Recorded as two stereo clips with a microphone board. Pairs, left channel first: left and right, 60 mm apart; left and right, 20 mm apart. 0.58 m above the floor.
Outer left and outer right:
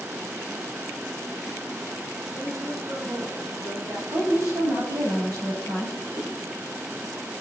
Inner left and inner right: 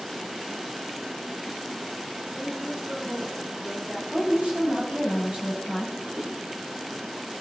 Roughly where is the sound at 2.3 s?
Right.